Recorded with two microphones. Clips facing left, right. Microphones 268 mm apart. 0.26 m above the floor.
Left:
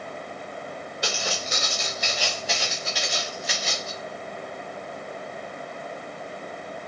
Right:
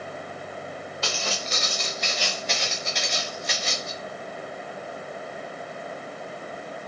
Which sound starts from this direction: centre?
Footsteps, at 1.0 s.